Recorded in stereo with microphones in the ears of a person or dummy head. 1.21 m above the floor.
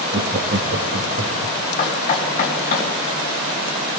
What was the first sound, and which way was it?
Laughter, 50° right (ahead or behind).